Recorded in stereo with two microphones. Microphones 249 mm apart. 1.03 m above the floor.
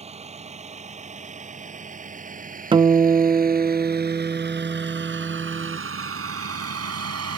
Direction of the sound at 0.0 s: 25° right (ahead or behind).